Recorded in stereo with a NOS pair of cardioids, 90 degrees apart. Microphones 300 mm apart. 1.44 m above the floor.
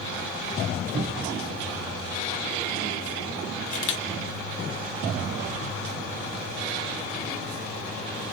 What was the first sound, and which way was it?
A cupboard door, 30° right.